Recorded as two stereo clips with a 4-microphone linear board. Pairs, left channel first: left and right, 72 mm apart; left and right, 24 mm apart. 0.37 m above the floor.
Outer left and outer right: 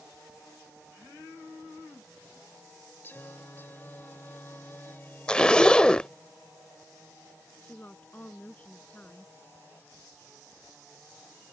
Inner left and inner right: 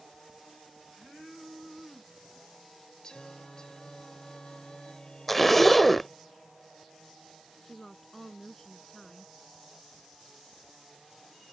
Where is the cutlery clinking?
No cutlery clinking in this recording.